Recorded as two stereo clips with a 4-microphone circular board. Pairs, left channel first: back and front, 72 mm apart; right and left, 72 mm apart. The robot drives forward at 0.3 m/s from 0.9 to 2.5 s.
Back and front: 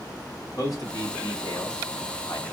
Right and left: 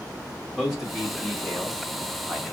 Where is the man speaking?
Straight behind, 1.9 m.